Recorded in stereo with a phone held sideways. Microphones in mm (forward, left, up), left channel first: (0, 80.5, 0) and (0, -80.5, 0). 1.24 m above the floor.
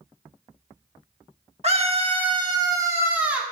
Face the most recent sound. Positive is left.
turn(degrees=-5)  # may be behind; listen again after turning